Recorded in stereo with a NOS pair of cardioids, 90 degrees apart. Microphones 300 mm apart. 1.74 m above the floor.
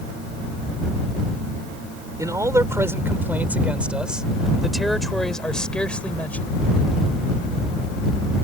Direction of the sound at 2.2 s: 10° right.